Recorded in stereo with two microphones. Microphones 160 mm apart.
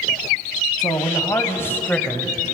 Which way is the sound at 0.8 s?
25° left (ahead or behind).